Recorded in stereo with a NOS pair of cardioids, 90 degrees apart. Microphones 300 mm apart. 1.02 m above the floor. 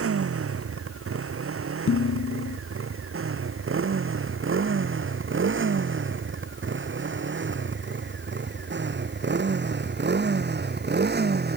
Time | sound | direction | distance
0.0 | a motorcycle | 50° right | ?
1.9 | dishes clattering | 45° left | ?